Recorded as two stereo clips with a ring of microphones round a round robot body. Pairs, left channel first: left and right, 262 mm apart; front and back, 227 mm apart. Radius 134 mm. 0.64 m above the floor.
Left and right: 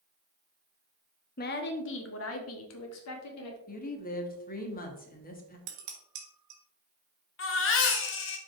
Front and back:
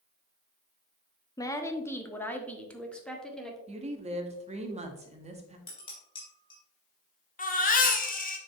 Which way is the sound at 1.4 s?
65° left.